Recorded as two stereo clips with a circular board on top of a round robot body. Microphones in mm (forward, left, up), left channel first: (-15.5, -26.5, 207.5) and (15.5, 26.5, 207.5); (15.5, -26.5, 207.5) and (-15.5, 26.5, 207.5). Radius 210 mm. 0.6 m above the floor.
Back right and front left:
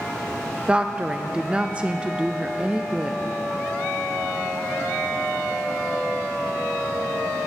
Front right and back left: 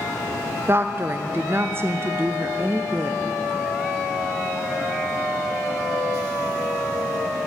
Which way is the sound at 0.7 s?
120° left.